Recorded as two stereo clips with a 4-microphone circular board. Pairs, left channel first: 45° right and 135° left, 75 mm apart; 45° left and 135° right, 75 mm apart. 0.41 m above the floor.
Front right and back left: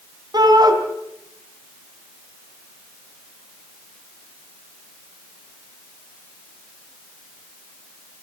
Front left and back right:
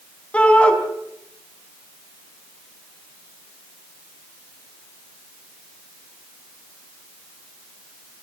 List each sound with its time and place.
0.3 s a shout: 120° left, 4 m